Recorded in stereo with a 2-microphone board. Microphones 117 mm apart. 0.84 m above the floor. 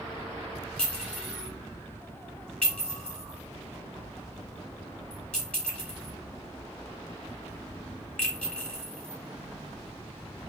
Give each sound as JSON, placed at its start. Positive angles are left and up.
{"t": 0.8, "sound": "a clink", "side_deg": 5, "distance_m": 1.5}